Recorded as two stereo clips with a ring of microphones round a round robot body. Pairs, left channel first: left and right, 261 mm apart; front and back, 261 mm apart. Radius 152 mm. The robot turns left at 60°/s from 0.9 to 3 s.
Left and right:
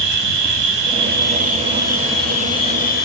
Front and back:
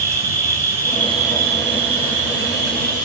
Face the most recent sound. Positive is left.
turn(degrees=125)